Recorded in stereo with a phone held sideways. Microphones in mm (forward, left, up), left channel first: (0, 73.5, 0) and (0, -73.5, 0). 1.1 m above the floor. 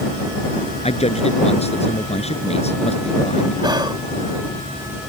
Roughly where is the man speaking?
Left.